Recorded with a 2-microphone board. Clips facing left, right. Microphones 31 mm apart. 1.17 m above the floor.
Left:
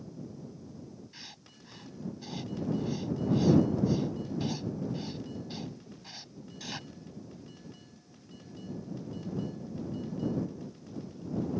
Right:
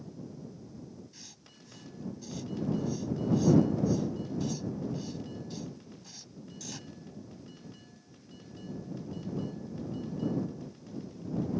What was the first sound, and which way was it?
Writing, 30° left (ahead or behind).